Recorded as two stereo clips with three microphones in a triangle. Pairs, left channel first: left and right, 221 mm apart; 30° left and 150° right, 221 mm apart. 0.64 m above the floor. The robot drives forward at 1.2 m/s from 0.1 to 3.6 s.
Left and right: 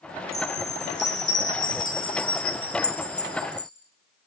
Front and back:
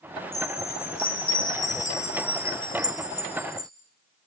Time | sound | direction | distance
0.3 | a chime | 45° left | 5 m